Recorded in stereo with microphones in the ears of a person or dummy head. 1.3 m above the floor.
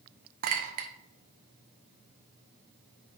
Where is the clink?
50° right (ahead or behind), 0.9 m.